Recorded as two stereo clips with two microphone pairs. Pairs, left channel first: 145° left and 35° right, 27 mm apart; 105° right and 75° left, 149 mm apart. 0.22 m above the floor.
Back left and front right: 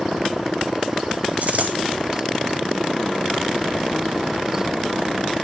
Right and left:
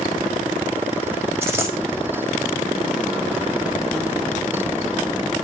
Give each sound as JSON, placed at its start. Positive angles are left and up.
{"t": 1.4, "sound": "a dropped coin", "azimuth_deg": 0, "distance_m": 5.0}